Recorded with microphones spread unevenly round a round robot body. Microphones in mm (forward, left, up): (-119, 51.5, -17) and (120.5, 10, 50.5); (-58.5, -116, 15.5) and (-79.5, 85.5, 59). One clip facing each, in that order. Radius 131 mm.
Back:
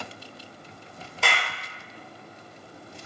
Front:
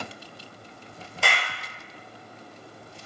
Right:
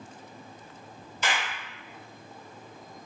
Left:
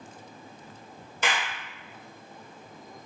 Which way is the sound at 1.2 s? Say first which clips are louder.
Even, left 1 dB; 100° left.